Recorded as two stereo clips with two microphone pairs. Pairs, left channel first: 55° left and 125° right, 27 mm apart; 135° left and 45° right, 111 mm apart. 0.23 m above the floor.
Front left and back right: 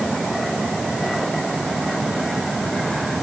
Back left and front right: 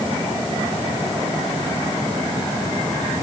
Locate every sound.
Only background noise.